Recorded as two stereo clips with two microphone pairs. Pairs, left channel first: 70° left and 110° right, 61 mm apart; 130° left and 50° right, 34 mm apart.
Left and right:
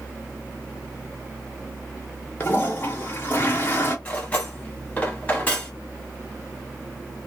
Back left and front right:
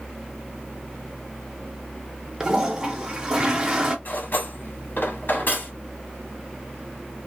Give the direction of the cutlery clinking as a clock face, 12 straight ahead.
7 o'clock.